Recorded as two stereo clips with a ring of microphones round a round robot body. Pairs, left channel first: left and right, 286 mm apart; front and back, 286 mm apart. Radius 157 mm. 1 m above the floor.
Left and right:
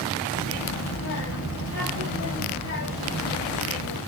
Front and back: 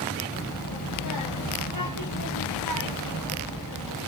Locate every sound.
0.3 s a child speaking: 40° left, 1.3 m